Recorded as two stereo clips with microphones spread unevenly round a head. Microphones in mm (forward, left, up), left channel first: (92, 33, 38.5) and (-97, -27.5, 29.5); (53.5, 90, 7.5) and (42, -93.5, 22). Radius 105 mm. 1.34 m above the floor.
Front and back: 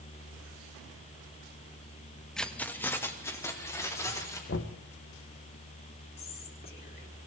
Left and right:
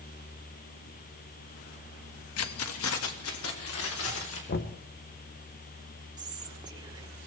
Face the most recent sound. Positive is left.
turn(degrees=-25)